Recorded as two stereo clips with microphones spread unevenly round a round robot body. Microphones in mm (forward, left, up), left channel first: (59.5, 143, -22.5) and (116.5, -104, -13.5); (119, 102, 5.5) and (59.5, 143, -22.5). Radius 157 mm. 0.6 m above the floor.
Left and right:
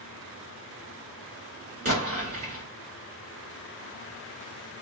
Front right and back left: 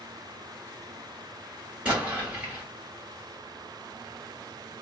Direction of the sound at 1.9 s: 145° right.